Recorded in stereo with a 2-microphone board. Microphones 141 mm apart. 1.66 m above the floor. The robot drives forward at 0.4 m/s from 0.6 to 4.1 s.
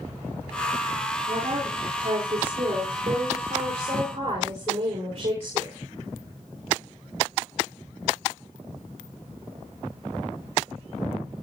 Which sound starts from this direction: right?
A woman speaking, at 1.3 s.